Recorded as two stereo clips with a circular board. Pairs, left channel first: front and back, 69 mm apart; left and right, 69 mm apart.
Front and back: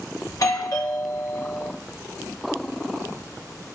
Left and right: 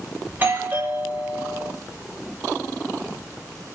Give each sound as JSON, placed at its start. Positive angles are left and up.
{"t": 0.3, "sound": "a doorbell", "azimuth_deg": -30, "distance_m": 2.0}